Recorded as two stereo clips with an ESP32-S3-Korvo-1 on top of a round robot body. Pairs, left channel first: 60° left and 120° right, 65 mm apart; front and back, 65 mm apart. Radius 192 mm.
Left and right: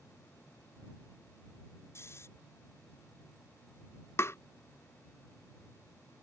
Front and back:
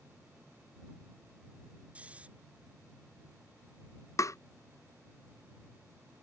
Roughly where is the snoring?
Left.